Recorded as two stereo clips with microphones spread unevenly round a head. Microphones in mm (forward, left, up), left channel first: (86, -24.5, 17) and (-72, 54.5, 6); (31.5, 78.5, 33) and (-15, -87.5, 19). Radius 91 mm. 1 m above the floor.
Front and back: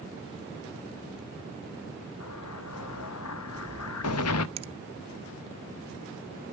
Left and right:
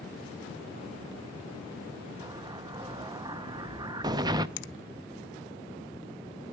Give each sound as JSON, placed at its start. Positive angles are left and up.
{"t": 2.2, "sound": "an explosion", "azimuth_deg": -35, "distance_m": 0.7}
{"t": 4.6, "sound": "a finger snap", "azimuth_deg": 95, "distance_m": 0.5}